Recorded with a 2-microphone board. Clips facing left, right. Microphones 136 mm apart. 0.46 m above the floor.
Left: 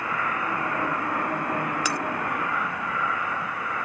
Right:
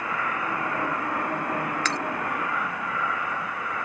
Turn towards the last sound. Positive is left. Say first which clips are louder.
# left 1 dB
turn(degrees=10)  # may be behind; listen again after turning